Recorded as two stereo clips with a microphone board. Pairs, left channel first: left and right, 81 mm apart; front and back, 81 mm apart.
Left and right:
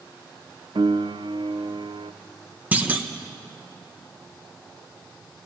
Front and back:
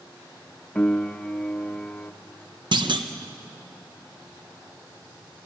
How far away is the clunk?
About 1.4 m.